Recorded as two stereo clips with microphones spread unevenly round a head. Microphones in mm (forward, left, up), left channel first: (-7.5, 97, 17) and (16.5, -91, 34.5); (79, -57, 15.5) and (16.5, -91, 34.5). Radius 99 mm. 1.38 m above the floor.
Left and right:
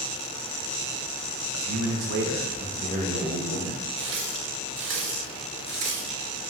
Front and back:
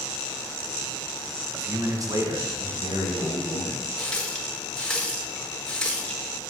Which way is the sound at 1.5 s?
85° right.